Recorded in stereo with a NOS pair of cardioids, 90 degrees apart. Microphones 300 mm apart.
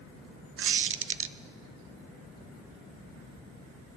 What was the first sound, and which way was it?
A squeak, 45° right.